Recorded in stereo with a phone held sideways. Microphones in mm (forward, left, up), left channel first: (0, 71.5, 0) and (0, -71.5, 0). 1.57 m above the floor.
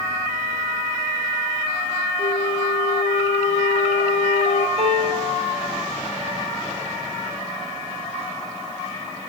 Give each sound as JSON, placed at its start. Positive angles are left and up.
{"t": 2.2, "sound": "a flute", "side_deg": 80, "distance_m": 1.0}
{"t": 4.8, "sound": "a piano", "side_deg": -50, "distance_m": 5.5}